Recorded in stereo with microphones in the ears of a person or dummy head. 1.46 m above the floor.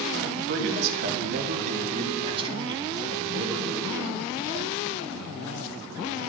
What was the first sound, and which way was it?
A man speaking, 75° right (ahead or behind).